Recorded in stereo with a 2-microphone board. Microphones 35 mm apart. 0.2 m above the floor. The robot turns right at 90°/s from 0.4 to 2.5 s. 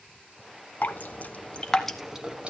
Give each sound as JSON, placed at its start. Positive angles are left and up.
{"t": 0.8, "sound": "dripping", "side_deg": 50, "distance_m": 1.0}